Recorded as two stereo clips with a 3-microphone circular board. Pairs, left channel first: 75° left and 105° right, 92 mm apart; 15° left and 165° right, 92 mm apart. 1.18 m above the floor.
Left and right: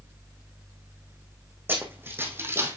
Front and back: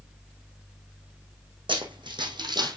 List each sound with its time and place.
1.7 s running footsteps: 170° right, 3 m; by 2.8 s 160° right, 1.8 m